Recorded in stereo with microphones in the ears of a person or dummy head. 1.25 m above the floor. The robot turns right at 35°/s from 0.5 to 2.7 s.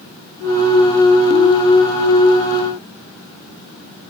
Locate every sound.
Only background noise.